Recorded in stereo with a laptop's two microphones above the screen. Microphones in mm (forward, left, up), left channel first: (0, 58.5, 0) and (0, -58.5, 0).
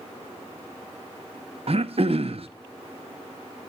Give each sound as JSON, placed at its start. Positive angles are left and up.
{"t": 1.7, "sound": "throat clearing", "side_deg": -55, "distance_m": 0.7}